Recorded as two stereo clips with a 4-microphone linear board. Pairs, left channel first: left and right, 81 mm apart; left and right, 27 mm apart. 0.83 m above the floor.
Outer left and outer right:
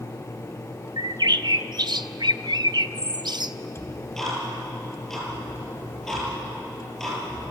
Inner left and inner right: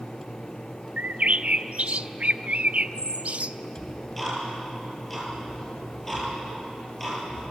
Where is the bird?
60° right (ahead or behind), 0.6 m.